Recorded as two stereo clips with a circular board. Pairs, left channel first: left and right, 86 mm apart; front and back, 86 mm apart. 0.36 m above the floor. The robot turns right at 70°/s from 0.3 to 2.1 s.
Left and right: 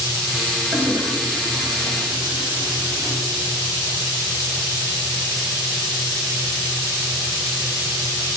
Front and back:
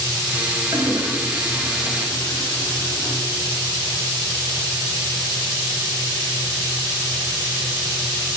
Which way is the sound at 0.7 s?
150° right.